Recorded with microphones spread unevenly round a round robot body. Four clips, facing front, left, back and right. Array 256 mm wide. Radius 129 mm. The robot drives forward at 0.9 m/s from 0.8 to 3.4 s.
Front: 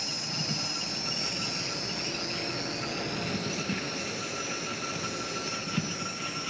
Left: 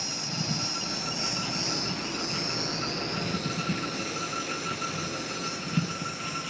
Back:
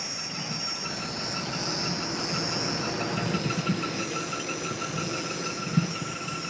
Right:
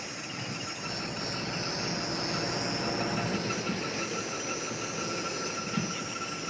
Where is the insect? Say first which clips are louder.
Left 4 dB, even; 80° left, 1.0 m; by 6.5 s 155° left, 2.5 m.